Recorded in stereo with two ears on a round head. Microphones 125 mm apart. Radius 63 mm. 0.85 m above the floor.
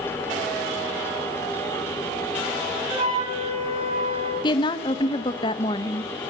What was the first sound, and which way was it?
A flute, 40° right (ahead or behind).